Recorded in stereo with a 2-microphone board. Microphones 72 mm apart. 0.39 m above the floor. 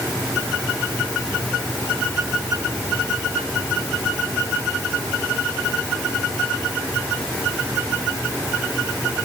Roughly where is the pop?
I don't hear a pop.